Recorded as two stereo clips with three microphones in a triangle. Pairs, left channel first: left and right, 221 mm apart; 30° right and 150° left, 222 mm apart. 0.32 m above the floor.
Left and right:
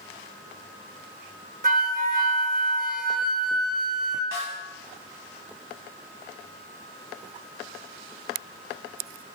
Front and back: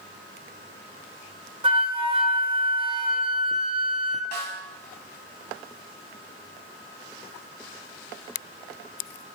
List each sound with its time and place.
1.6 s a flute: 140° right, 1.3 m
4.3 s a snare drum: 70° right, 2.5 m